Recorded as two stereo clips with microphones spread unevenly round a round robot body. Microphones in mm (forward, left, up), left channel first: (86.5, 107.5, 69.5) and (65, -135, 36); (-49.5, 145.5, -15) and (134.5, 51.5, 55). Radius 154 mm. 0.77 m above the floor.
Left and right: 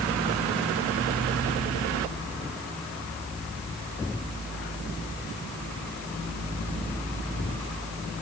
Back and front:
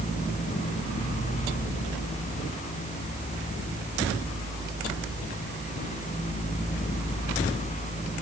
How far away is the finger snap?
No finger snap in this recording.